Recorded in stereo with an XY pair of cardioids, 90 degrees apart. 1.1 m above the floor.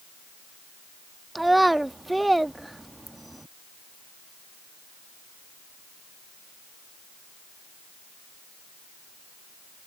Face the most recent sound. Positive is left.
turn(degrees=-10)